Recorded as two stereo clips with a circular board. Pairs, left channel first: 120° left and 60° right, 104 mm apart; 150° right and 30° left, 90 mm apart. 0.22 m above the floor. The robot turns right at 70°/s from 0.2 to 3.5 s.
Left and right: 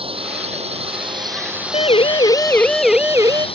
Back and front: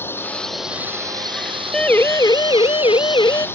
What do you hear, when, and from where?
0.0 s a drone: 85° right; by 3.6 s 145° left
1.7 s a siren: 125° left; by 3.5 s 105° right